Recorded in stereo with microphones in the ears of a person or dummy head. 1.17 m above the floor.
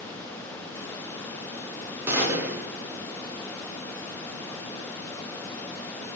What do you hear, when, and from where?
2.1 s a gunshot: 15° right (ahead or behind), 0.6 m